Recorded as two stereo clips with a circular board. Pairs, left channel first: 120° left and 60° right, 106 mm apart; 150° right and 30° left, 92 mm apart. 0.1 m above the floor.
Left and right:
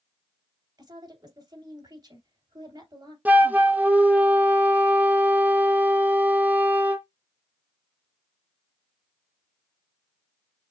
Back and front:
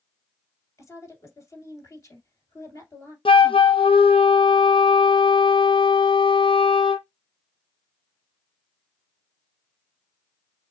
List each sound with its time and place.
0.8 s a woman speaking: 100° right, 2.5 m
3.2 s a flute: 135° right, 0.6 m